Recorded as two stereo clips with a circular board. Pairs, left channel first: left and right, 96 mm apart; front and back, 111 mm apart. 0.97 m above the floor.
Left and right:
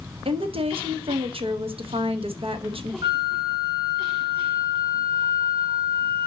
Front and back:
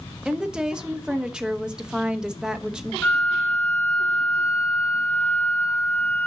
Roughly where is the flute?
Right.